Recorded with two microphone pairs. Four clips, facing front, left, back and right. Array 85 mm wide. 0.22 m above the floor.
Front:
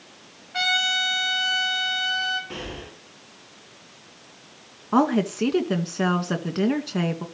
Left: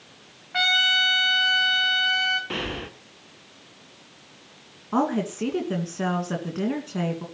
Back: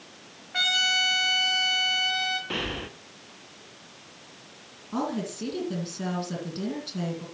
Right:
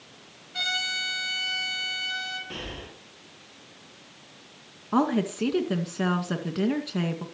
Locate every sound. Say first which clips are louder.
0.5 s a trumpet: left 9 dB, front 3 dB; 100° left, 4.5 m
2.5 s breathing: left 8 dB, back 3 dB; 120° left, 1.9 m
4.9 s a woman speaking: even, front 10 dB; 5° right, 2 m